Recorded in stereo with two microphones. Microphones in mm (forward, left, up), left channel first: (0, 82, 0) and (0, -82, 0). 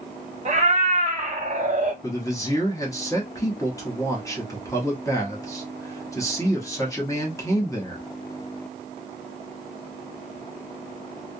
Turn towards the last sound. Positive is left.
turn(degrees=20)  # may be behind; listen again after turning